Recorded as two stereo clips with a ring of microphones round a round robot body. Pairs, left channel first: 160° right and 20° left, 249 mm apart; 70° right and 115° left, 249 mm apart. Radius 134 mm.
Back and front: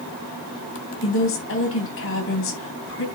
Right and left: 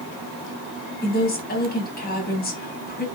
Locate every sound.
1.0 s a woman speaking: 120° right, 3.5 m